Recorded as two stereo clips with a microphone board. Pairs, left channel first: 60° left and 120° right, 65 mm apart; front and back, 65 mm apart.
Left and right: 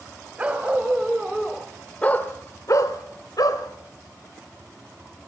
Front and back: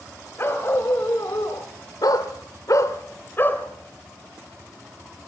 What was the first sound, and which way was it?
A dog barking, 55° right.